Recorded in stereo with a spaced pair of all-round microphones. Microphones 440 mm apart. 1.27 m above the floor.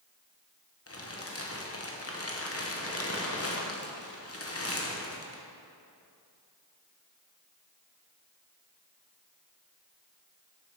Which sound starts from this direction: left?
Crumpling, at 0.9 s.